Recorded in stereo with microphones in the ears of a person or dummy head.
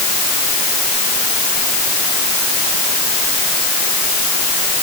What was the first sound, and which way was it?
Only background noise.